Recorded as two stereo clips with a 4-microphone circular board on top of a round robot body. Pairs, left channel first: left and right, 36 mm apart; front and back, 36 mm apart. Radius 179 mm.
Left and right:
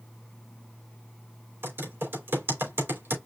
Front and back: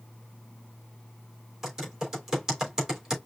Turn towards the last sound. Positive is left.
turn(degrees=-100)